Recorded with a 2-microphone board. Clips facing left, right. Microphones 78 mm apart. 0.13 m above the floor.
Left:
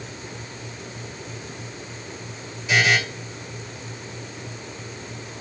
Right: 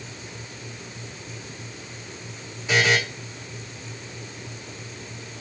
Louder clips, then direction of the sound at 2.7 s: Left 1 dB; 30° right (ahead or behind).